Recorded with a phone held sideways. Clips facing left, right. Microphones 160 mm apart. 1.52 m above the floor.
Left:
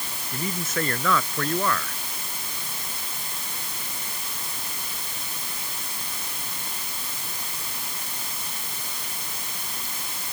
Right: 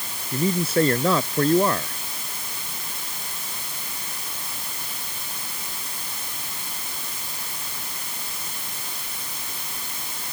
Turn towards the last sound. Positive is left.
turn(degrees=-30)  # may be behind; listen again after turning